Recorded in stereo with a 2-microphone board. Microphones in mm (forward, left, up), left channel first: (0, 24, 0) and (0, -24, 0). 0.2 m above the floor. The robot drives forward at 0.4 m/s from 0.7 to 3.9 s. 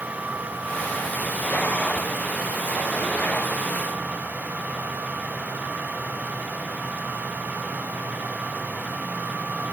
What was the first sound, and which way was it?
Only background noise.